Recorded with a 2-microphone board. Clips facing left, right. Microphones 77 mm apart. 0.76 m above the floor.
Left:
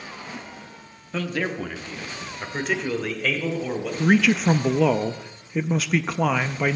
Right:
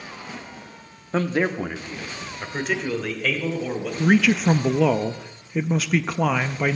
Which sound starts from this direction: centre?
A man speaking, at 4.0 s.